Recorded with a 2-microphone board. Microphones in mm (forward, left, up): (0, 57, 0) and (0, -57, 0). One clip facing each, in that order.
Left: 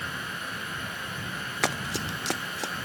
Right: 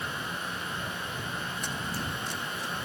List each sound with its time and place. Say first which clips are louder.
1.6 s running footsteps: left 4 dB; 85° left; by 2.7 s 80° left